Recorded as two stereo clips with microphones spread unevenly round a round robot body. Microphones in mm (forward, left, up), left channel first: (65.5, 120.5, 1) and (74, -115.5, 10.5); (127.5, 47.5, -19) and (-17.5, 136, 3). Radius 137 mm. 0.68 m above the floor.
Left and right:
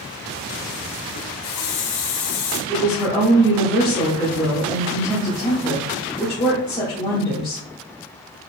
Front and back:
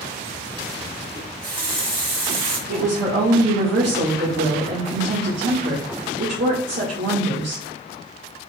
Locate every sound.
1.1 s a running tap: 115° left, 3 m
2.7 s a woman speaking: 165° left, 2.0 m